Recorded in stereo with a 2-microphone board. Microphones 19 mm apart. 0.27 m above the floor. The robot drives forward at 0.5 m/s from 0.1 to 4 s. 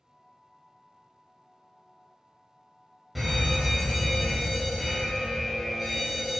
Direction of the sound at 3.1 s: 5° right (ahead or behind).